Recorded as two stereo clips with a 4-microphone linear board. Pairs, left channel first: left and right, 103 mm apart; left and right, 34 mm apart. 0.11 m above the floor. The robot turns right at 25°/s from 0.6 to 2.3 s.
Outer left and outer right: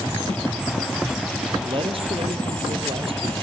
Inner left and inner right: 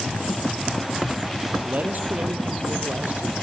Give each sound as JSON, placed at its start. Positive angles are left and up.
{"t": 1.6, "sound": "a man speaking", "side_deg": -60, "distance_m": 2.5}